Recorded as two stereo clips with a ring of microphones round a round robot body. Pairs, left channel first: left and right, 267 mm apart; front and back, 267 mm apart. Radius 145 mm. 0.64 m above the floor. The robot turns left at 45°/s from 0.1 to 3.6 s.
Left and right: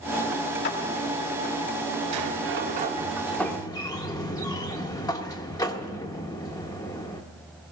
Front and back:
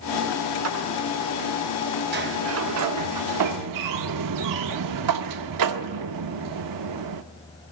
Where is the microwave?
No microwave in this recording.